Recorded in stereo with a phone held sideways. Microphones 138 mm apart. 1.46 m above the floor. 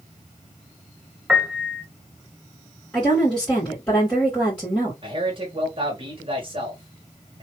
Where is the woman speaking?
10° left (ahead or behind), 2.5 m.